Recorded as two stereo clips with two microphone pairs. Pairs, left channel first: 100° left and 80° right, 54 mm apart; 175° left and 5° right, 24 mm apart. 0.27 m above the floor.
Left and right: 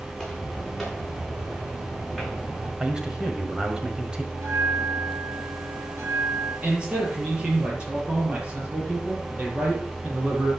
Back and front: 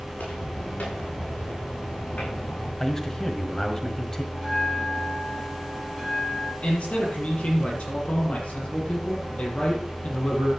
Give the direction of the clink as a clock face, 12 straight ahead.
I don't hear a clink.